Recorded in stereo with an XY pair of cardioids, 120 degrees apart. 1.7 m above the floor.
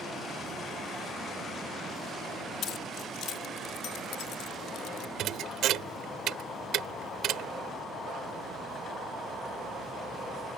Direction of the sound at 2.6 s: 65° left.